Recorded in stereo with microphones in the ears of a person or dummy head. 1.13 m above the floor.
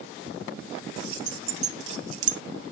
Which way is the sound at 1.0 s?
25° right (ahead or behind).